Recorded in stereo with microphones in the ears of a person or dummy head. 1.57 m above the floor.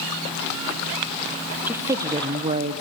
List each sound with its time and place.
1.7 s a woman speaking: 10° right (ahead or behind), 1.1 m; by 2.8 s 40° right (ahead or behind), 0.5 m